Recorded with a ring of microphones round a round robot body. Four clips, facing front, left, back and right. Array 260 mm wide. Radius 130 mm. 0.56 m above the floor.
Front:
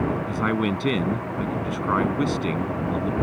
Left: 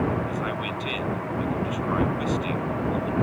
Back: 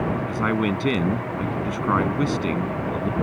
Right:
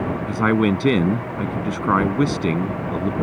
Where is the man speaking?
90° right.